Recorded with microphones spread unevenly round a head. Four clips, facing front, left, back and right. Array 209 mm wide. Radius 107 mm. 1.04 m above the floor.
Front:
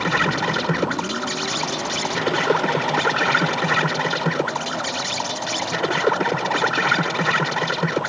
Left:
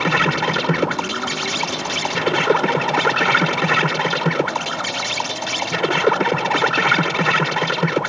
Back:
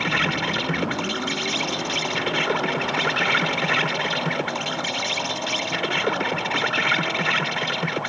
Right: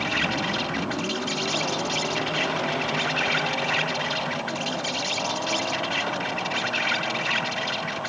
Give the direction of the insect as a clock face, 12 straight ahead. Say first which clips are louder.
Left 8 dB, front 3 dB; 10 o'clock.